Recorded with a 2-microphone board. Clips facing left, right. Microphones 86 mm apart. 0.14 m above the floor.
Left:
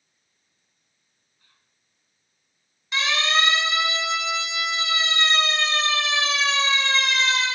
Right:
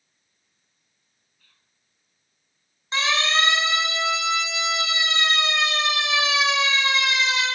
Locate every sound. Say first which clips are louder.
1.4 s whispering: left 2 dB; 20° left (ahead or behind), 1.1 m
2.9 s a siren: right 1 dB; 30° right (ahead or behind), 5.5 m; by 7.5 s 5° right (ahead or behind), 4 m